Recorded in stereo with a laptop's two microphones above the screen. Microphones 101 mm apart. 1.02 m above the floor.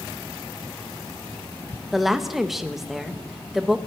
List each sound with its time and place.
1.9 s a woman speaking: centre (ahead or behind), 0.7 m